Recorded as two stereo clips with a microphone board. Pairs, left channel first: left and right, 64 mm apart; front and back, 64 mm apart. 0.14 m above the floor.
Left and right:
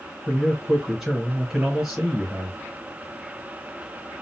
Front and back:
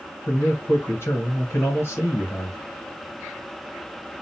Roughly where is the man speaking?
Ahead.